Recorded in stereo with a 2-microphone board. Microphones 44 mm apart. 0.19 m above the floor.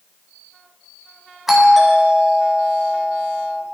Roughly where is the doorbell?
Centre.